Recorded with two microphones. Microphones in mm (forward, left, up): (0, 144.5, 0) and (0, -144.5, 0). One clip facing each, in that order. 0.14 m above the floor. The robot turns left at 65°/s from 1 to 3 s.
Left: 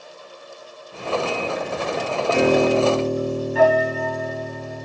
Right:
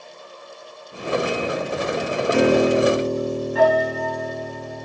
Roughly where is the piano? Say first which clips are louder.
Right 1 dB; behind right.